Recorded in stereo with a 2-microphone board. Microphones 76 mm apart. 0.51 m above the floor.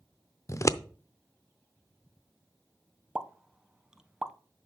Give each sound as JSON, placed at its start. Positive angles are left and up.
{"t": 0.5, "sound": "scissors", "side_deg": 40, "distance_m": 0.5}
{"t": 3.1, "sound": "a pop", "side_deg": -10, "distance_m": 0.6}